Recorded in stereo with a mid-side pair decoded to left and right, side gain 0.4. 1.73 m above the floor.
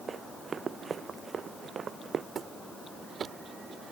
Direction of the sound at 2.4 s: 50° right.